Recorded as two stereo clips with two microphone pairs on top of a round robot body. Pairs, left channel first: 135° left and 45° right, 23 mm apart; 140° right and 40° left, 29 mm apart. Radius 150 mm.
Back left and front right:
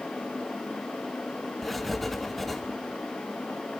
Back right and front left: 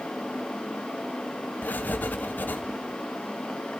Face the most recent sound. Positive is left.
turn(degrees=-140)